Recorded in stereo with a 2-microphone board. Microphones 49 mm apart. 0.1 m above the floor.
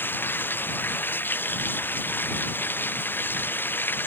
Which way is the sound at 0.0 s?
40° left (ahead or behind).